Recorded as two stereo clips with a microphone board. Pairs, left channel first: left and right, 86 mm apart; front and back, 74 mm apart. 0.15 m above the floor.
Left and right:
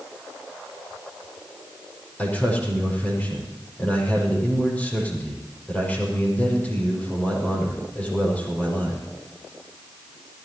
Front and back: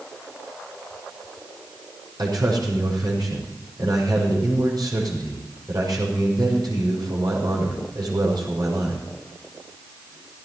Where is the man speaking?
165° left, 6 m.